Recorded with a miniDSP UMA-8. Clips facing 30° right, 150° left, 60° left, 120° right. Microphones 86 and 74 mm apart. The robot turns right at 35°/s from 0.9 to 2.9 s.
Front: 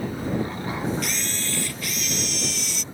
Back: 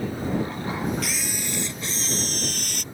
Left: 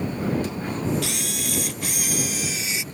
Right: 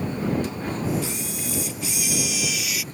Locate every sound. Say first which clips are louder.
1.0 s a camera shutter: even, left 1 dB; 60° left; by 2.8 s 125° left